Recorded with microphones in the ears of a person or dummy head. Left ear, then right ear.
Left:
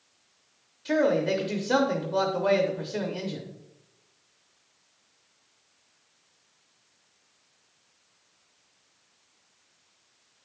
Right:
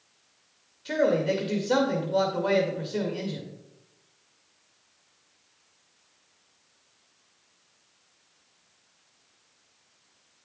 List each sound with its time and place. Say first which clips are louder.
0.8 s a man speaking: even; 5° left (ahead or behind), 0.8 m